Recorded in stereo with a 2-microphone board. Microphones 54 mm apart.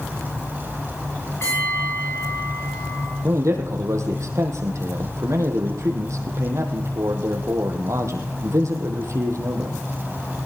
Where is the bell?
60° left (ahead or behind), 8 m.